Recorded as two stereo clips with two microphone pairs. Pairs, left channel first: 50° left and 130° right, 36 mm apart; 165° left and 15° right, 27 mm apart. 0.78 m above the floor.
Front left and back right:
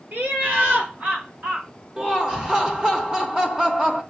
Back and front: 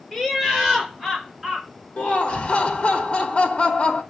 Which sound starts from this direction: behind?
Laughter, at 2.0 s.